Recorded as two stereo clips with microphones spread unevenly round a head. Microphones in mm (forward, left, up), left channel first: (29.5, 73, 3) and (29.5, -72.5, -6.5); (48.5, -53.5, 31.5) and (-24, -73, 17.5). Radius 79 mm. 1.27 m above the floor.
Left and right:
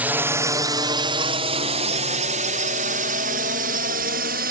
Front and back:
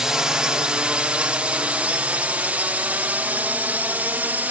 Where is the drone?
135° right; by 4.5 s 100° right.